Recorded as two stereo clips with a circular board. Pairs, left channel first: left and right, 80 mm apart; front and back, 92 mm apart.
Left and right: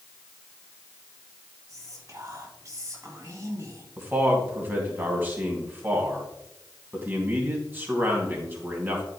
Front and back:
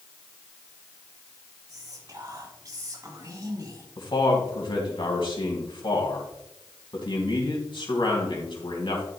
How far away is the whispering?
About 4 m.